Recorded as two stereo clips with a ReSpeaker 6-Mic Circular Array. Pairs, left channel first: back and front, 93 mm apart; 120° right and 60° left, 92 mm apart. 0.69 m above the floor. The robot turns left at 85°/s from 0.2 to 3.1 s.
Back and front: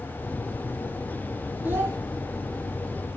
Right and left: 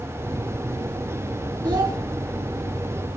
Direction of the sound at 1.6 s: 70° left.